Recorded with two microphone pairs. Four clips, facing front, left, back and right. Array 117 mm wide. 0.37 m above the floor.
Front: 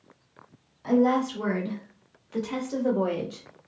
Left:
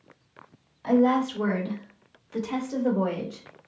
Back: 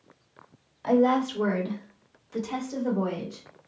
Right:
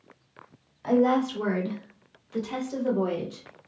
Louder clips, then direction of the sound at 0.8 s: Left 1 dB, even; 165° right.